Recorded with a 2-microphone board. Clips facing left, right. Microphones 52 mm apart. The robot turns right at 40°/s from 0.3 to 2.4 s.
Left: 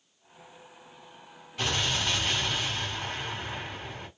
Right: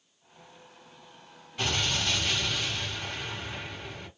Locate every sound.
1.6 s an explosion: 5° right, 3 m; by 4.1 s 25° left, 3 m